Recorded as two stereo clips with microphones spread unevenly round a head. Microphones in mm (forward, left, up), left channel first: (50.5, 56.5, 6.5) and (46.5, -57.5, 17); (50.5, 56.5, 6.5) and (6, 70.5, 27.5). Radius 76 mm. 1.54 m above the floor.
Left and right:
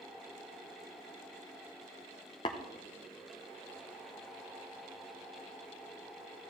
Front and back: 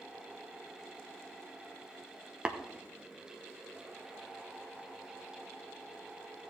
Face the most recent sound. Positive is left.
turn(degrees=135)